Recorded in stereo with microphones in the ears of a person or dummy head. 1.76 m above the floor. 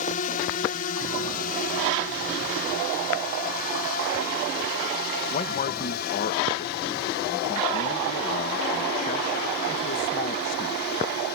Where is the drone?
40° left (ahead or behind); by 11.4 s 55° left (ahead or behind).